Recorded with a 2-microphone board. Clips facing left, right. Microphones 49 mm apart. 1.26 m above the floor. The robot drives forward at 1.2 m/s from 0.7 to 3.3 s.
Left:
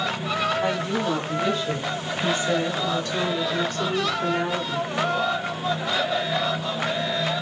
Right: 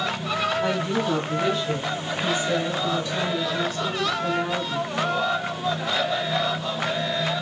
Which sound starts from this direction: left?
A woman speaking, at 0.6 s.